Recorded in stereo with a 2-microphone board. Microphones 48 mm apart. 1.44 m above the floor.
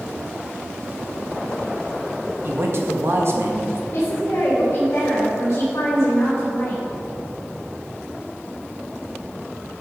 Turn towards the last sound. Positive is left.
turn(degrees=50)  # may be behind; listen again after turning